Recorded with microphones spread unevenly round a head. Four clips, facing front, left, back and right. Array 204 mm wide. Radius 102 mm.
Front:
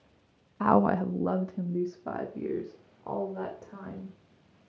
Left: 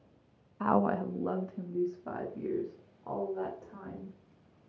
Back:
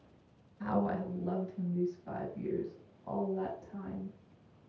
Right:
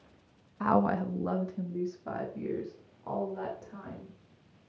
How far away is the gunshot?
No gunshot in this recording.